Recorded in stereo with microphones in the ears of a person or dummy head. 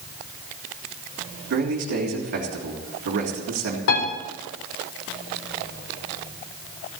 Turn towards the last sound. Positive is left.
turn(degrees=65)  # may be behind; listen again after turning